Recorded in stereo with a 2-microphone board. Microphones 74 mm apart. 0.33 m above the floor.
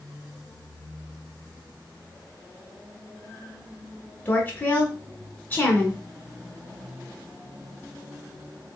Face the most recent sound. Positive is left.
turn(degrees=25)  # may be behind; listen again after turning